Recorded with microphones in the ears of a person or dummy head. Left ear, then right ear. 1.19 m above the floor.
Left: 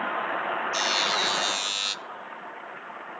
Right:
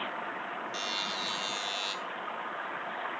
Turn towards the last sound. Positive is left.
turn(degrees=35)  # may be behind; listen again after turning